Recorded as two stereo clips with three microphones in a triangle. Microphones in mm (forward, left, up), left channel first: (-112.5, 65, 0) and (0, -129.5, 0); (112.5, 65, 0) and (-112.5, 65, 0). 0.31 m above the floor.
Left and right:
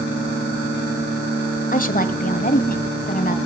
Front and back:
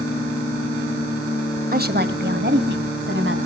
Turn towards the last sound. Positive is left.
turn(degrees=165)